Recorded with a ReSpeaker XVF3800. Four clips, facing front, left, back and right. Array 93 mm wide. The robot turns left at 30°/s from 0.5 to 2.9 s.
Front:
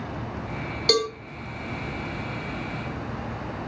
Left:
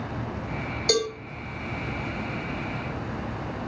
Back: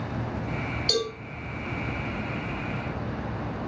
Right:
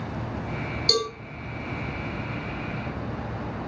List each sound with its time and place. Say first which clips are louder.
0.9 s a cowbell: left 2 dB, front 6 dB; 20° left, 1.9 m; by 1.1 s 15° left, 1.9 m